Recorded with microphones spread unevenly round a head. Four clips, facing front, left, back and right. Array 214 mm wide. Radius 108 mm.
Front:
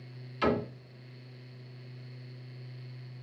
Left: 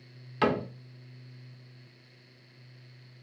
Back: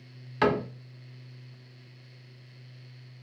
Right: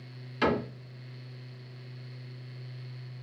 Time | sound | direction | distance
0.4 | a cupboard door | 165° left | 1.3 m